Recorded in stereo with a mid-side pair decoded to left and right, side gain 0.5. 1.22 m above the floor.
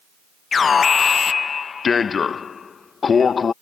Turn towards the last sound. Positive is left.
turn(degrees=40)